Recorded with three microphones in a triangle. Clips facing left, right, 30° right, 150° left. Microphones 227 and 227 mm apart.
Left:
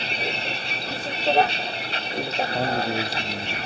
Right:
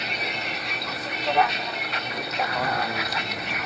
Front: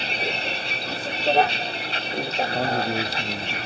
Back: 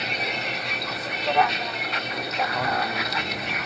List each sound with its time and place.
0.0 s a vehicle: 30° left
2.5 s a man speaking: 25° left